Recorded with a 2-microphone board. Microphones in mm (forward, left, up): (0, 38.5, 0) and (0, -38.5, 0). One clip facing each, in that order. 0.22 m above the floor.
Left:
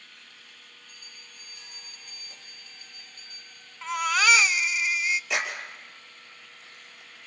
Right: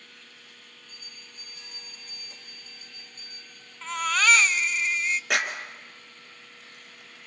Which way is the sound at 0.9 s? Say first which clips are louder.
Right 1 dB; 25° right (ahead or behind).